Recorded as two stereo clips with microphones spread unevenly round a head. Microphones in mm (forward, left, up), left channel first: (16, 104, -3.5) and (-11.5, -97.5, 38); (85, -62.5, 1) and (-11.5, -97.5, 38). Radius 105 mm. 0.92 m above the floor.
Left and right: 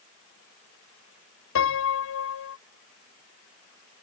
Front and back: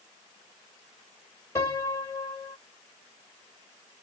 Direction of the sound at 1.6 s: 85° left.